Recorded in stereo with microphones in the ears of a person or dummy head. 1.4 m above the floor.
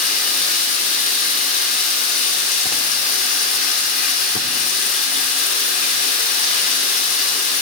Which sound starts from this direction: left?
Running water, at 0.0 s.